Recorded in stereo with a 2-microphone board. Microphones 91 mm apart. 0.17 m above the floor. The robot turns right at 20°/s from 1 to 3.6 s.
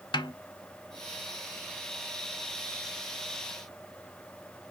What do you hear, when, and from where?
0.1 s a snare drum: 55° left (ahead or behind), 0.7 m